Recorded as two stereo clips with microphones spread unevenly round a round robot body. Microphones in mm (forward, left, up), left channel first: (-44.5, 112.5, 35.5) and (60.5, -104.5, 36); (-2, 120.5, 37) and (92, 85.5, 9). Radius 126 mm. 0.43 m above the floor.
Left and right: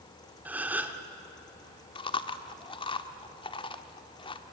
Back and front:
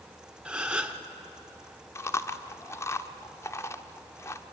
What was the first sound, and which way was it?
A gasp, 15° left.